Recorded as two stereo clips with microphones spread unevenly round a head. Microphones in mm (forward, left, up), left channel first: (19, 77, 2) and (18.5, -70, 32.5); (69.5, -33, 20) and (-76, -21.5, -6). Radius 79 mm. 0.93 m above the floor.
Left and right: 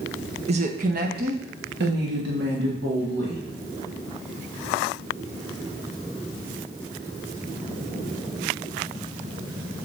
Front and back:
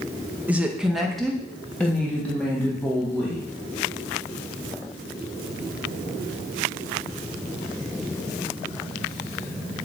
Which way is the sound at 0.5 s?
125° right.